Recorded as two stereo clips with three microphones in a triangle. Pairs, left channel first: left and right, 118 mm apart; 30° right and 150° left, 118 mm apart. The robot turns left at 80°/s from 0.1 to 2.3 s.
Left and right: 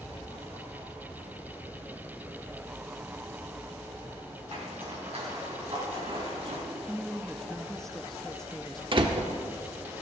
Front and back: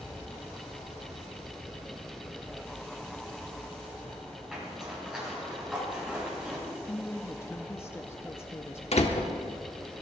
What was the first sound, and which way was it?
A zipper, 125° right.